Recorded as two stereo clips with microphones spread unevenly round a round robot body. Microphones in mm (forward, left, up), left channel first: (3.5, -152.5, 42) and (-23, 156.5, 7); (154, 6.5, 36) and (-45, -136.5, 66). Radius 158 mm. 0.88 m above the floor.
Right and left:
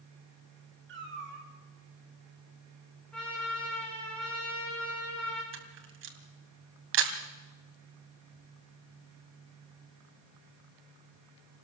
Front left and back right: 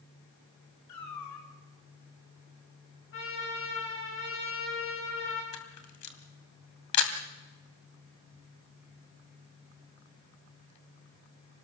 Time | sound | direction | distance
0.9 | a cat meowing | 40° left | 3 m
3.1 | a trumpet | straight ahead | 8.5 m
5.5 | a camera shutter | 40° left | 2.5 m